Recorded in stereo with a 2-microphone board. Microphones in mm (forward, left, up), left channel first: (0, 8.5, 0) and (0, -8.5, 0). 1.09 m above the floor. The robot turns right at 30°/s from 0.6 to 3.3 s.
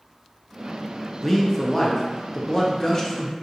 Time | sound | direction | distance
1.2 | a man speaking | 20° left (ahead or behind) | 0.5 m